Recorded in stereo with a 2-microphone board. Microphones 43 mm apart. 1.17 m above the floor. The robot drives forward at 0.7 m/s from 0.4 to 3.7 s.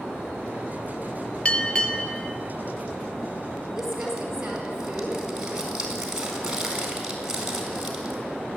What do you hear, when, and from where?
1.4 s a bell: 25° left (ahead or behind), 0.9 m; by 2.4 s 15° left (ahead or behind), 1.5 m
3.8 s crumpling: 15° right (ahead or behind), 4.5 m